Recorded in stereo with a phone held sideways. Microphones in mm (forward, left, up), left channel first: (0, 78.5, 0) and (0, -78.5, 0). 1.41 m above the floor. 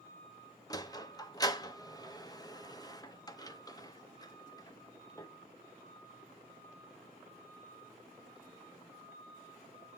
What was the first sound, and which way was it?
A sliding door, 25° left (ahead or behind).